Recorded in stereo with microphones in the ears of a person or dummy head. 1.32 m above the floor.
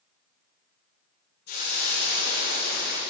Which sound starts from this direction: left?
A hiss, at 1.5 s.